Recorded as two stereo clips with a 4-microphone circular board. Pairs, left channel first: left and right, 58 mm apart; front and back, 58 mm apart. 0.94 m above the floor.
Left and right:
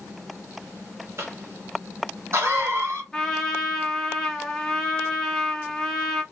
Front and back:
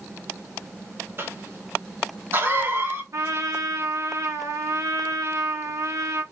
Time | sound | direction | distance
1.2 | a cough | 130° right | 1.7 m
3.1 | a trumpet | 170° left | 1.3 m